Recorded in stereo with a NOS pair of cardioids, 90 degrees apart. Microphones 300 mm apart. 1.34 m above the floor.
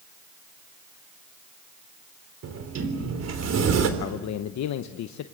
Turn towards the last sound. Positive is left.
turn(degrees=65)